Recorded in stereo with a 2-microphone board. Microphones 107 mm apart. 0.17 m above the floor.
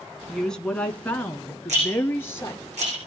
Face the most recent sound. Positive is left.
turn(degrees=-80)